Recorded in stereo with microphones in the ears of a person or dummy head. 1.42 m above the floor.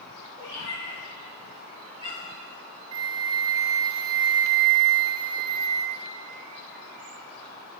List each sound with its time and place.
0.4 s a cat meowing: 70° left (ahead or behind), 2.5 m; by 2.5 s 35° left (ahead or behind), 3 m
2.9 s a flute: 20° right (ahead or behind), 0.7 m